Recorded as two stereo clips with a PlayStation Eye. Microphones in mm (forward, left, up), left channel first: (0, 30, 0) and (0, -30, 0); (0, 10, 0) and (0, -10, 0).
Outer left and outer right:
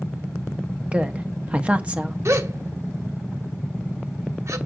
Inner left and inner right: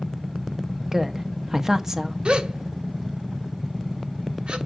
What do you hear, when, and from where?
0.9 s a woman speaking: 20° right (ahead or behind), 0.9 m
2.2 s a gasp: 55° right (ahead or behind), 0.9 m